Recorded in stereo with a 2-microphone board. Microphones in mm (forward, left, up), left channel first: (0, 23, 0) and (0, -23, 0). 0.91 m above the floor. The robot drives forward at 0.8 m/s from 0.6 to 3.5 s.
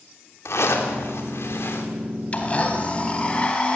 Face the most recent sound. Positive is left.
turn(degrees=20)  # may be behind; listen again after turning